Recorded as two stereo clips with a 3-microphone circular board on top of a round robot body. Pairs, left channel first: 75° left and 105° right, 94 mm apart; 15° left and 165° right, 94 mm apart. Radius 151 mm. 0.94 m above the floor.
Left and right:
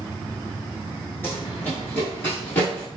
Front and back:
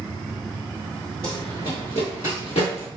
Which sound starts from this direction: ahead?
Running footsteps, at 1.2 s.